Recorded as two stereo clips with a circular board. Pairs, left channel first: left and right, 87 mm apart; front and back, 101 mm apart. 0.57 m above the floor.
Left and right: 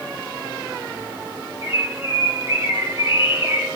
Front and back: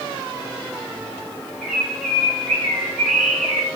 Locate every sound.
1.6 s a bird: 90° left, 2 m